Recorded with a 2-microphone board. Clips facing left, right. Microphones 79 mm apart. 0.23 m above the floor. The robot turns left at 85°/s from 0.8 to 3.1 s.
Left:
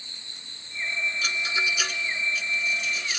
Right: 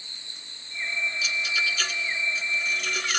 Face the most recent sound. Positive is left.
turn(degrees=-65)  # may be behind; listen again after turning